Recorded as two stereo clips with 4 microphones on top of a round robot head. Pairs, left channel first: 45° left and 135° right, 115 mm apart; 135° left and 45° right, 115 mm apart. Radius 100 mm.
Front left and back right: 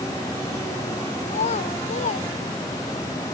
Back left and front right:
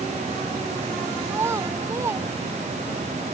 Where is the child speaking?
25° left.